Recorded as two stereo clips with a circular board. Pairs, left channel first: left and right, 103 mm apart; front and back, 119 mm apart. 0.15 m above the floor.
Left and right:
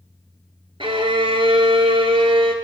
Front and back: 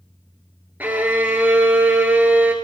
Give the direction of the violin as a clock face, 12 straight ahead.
4 o'clock.